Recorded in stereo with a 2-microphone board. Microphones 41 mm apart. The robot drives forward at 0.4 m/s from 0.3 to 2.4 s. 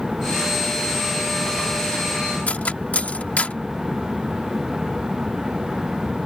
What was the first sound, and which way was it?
Cutlery clinking, 40° left (ahead or behind).